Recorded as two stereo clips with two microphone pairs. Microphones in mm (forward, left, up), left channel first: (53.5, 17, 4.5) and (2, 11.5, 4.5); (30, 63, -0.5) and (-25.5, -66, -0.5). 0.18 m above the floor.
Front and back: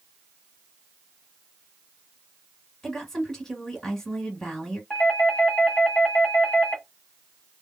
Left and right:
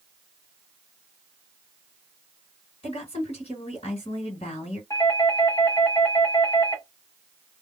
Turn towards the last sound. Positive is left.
turn(degrees=35)